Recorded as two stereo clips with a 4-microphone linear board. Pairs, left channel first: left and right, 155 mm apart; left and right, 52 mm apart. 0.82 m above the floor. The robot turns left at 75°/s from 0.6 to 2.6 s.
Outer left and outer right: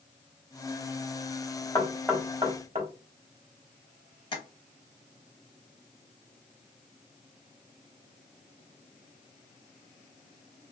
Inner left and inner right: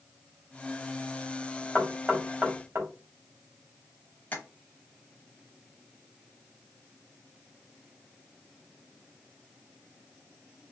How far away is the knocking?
About 1.1 m.